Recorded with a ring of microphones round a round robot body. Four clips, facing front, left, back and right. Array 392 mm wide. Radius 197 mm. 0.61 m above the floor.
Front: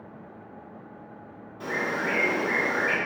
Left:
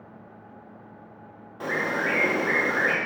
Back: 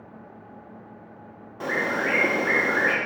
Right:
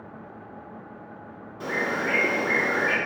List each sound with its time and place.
1.6 s a bird: 155° left, 0.9 m